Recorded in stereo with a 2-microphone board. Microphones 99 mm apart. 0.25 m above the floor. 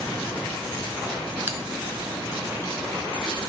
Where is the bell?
20° right (ahead or behind), 1.1 m.